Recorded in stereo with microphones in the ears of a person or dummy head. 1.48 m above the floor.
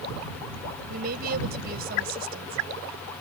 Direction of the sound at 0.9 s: 50° right (ahead or behind).